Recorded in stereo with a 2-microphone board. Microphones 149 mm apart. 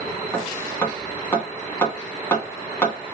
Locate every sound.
0.3 s hammering: 15° left (ahead or behind), 2 m